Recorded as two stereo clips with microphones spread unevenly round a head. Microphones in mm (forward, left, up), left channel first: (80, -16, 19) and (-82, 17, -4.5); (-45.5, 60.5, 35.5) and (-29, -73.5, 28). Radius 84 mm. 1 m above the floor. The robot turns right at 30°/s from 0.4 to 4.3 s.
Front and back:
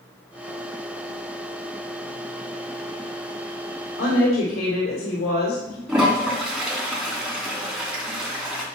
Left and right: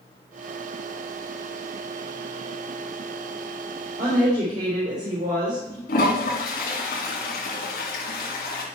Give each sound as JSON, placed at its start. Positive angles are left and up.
{"t": 4.0, "sound": "a woman speaking", "azimuth_deg": -55, "distance_m": 3.0}
{"t": 5.9, "sound": "a toilet flushing", "azimuth_deg": 85, "distance_m": 2.5}